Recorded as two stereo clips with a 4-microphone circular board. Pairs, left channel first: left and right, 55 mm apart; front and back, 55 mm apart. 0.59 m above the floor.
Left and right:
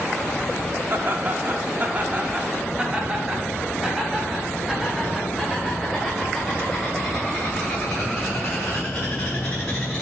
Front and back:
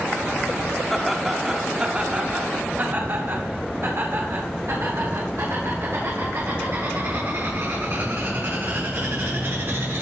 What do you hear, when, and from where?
0.9 s laughter: 85° right, 1.3 m; by 10.0 s 165° left, 5 m